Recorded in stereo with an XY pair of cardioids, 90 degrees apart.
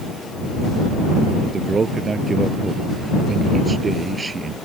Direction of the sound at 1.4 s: 40° right.